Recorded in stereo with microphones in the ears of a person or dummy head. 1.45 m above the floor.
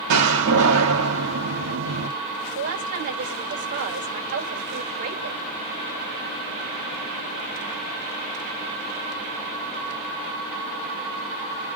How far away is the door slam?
About 1.5 m.